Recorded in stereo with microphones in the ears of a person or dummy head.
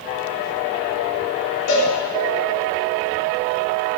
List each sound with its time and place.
1.7 s a cowbell: 65° left (ahead or behind), 1.8 m